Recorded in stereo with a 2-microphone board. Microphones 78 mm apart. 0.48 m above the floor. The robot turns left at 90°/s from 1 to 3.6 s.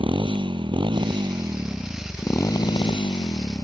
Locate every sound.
0.0 s a motorcycle: 95° right; by 3.6 s 30° left